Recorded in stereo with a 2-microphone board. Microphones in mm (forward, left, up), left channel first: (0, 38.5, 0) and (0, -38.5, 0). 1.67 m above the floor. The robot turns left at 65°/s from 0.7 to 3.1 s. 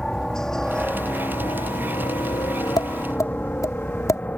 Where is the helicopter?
10° left (ahead or behind); by 4.4 s 20° left (ahead or behind).